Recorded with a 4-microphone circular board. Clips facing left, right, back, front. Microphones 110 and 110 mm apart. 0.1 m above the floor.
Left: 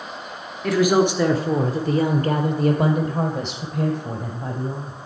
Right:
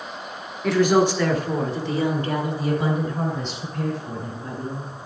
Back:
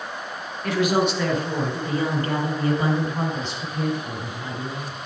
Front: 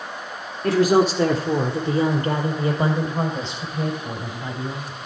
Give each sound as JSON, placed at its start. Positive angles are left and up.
{"t": 0.6, "sound": "a woman speaking", "azimuth_deg": 0, "distance_m": 1.3}